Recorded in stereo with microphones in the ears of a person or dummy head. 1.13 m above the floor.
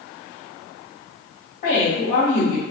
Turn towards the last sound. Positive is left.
turn(degrees=50)  # may be behind; listen again after turning